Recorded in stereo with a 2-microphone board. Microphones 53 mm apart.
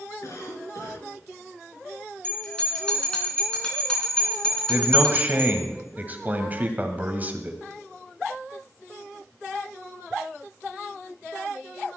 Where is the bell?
15° left (ahead or behind), 3.5 m.